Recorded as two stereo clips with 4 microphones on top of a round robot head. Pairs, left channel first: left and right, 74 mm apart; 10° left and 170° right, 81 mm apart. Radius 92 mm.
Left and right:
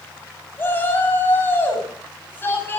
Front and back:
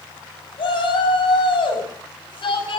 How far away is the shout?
About 7.5 m.